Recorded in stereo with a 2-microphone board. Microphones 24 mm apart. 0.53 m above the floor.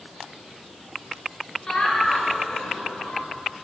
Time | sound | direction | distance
1.7 | laughter | 35° left (ahead or behind) | 9 m